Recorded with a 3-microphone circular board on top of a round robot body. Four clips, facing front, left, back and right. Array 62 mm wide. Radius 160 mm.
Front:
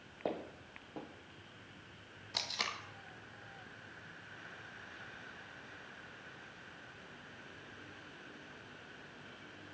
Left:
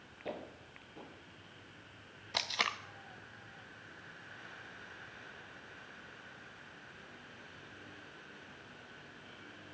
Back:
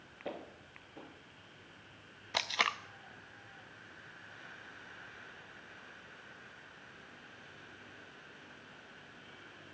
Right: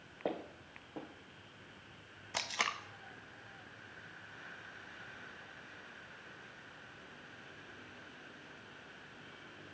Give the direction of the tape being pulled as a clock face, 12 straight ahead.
6 o'clock.